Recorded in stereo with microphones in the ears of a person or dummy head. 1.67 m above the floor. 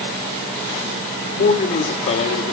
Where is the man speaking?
40° left (ahead or behind), 3.5 m.